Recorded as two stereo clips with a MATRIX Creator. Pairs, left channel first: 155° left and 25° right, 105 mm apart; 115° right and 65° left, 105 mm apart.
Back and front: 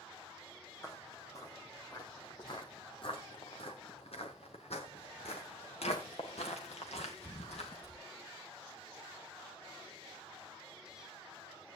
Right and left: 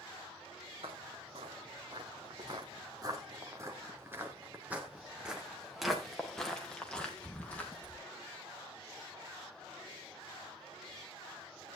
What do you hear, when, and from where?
0.8 s footsteps: 95° left, 2.5 m; by 8.0 s 175° left, 3.5 m